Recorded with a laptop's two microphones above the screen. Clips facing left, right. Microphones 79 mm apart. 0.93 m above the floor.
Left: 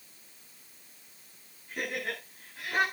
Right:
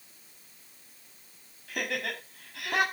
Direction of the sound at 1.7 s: 80° right.